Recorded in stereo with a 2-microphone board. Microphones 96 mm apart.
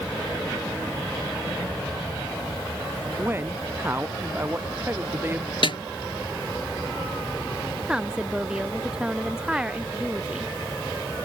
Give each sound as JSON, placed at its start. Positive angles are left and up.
{"t": 3.2, "sound": "a man speaking", "side_deg": -20}
{"t": 5.6, "sound": "a snare drum", "side_deg": 65}
{"t": 7.9, "sound": "a woman speaking", "side_deg": -10}